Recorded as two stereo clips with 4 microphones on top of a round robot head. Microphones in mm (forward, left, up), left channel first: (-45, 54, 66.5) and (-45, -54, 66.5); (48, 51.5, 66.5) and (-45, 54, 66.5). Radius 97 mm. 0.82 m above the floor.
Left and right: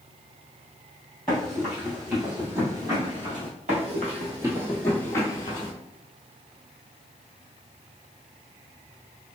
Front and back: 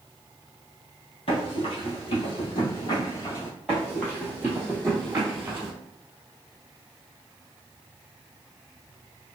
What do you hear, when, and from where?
1.3 s running footsteps: 5° left, 1.5 m; by 3.5 s 70° right, 0.8 m
3.7 s running footsteps: 90° right, 1.3 m; by 5.7 s 120° left, 1.2 m